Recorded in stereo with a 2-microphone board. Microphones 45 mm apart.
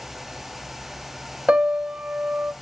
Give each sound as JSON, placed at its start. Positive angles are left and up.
{"t": 1.5, "sound": "a piano", "side_deg": -20, "distance_m": 0.8}